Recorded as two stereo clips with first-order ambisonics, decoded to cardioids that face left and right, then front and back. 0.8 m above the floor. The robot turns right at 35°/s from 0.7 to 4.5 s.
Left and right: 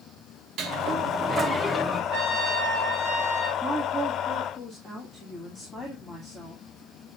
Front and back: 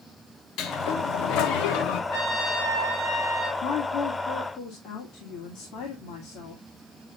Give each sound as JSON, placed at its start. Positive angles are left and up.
{"t": 0.6, "sound": "a sliding door", "azimuth_deg": -40, "distance_m": 1.0}
{"t": 2.1, "sound": "a trumpet", "azimuth_deg": -40, "distance_m": 5.0}
{"t": 3.6, "sound": "a woman speaking", "azimuth_deg": -10, "distance_m": 2.0}